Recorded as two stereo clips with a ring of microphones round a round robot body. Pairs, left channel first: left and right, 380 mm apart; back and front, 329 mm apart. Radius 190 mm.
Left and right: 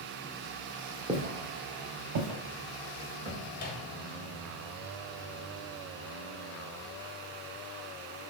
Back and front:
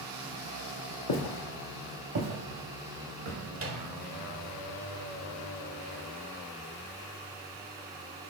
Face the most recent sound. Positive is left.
turn(degrees=30)